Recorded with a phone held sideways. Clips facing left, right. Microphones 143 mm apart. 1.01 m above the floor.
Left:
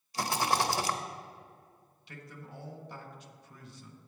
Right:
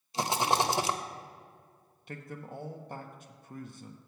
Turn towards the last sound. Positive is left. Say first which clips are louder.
# right 6 dB
turn(degrees=-50)  # may be behind; listen again after turning